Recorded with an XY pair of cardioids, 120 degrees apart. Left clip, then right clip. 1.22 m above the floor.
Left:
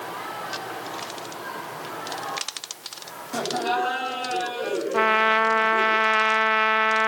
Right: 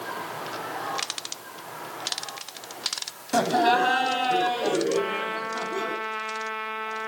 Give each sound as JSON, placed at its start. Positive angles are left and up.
{"t": 3.3, "sound": "laughter", "azimuth_deg": -40, "distance_m": 7.0}
{"t": 4.9, "sound": "a trumpet", "azimuth_deg": 60, "distance_m": 0.7}